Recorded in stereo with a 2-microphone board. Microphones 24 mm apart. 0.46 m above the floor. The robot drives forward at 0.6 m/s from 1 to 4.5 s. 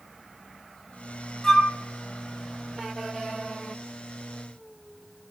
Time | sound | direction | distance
1.4 | a flute | 20° left (ahead or behind) | 3 m